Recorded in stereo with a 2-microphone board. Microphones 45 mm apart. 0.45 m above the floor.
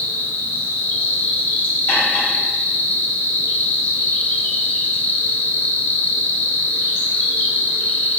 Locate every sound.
0.0 s an insect: 55° left (ahead or behind), 0.8 m
1.9 s cutlery clinking: 70° left (ahead or behind), 1.5 m